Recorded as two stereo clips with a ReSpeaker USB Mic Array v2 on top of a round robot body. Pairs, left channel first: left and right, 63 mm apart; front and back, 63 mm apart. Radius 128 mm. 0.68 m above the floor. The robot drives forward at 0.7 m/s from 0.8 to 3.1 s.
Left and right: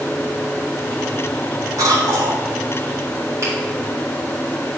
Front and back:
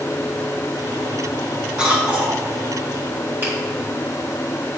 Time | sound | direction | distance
1.8 | a cough | 105° right | 3.5 m
3.4 | a finger snap | 125° right | 3.5 m